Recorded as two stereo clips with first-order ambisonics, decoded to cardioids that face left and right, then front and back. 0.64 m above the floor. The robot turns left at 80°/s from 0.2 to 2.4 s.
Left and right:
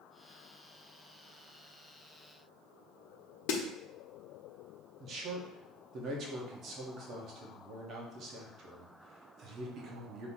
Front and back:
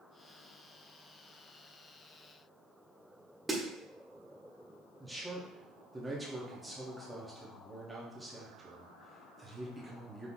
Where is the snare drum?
100° left, 0.8 m.